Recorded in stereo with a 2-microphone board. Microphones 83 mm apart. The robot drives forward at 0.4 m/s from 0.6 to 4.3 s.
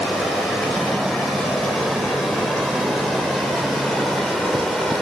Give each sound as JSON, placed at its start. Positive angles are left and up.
{"t": 0.0, "sound": "running water", "side_deg": 0, "distance_m": 6.5}